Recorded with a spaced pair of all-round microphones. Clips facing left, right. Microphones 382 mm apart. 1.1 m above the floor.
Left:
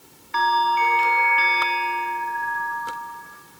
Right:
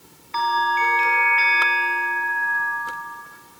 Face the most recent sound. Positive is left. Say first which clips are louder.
# left 2 dB
turn(degrees=25)  # may be behind; listen again after turning